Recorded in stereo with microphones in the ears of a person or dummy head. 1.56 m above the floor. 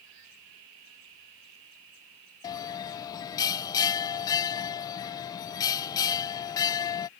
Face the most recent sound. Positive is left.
turn(degrees=20)  # may be behind; listen again after turning